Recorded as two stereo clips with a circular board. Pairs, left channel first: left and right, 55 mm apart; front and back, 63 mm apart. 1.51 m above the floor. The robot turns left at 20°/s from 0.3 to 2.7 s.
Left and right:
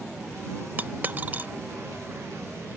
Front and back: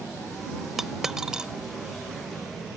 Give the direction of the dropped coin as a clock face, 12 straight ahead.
3 o'clock.